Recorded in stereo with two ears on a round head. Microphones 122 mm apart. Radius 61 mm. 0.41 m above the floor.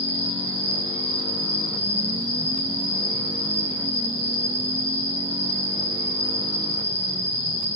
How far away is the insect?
About 1.9 m.